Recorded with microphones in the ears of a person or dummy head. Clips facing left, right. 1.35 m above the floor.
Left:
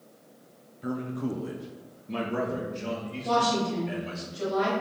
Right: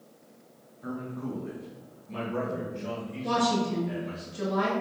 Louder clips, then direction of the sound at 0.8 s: Left 4 dB; 25° left (ahead or behind).